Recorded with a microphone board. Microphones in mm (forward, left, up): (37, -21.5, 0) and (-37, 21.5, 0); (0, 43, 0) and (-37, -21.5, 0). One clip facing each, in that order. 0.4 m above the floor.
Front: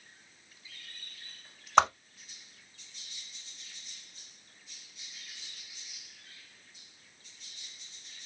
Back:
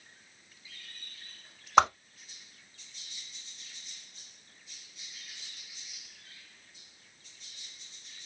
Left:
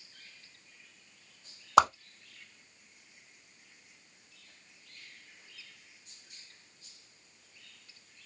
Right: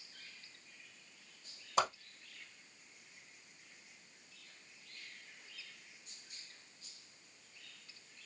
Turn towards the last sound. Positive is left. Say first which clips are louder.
# back 1 dB, left 11 dB
turn(degrees=65)